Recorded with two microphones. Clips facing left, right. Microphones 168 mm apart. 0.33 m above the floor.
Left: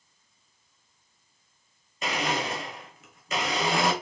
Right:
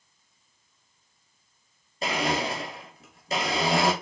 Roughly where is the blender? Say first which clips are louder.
Right 2 dB; right.